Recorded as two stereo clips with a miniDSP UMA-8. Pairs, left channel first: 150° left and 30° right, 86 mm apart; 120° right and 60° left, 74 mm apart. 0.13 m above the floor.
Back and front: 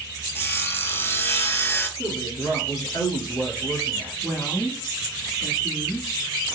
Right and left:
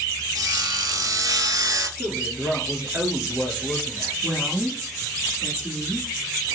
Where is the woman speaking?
125° left, 1.4 m.